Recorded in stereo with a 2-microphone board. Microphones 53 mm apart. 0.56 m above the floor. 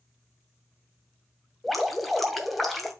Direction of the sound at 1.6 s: Centre (ahead or behind).